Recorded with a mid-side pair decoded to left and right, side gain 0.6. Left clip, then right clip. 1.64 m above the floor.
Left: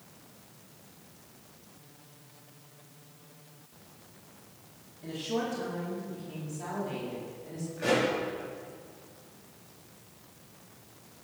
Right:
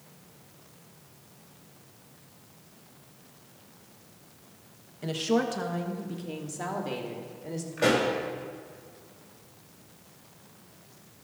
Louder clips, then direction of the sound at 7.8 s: Right 3 dB; 65° right.